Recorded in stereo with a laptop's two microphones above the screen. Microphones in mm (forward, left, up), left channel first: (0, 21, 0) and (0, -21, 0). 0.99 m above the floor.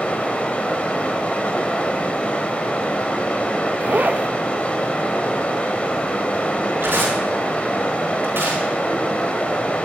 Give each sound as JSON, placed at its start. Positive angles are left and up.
{"t": 0.0, "sound": "running water", "side_deg": 35, "distance_m": 3.0}
{"t": 3.8, "sound": "a zipper", "side_deg": -40, "distance_m": 0.6}
{"t": 6.8, "sound": "tearing paper", "side_deg": -65, "distance_m": 6.5}